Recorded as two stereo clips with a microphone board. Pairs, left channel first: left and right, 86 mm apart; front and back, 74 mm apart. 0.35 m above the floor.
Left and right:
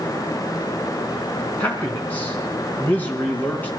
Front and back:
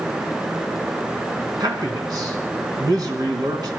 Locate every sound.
1.6 s a man speaking: 160° left, 3 m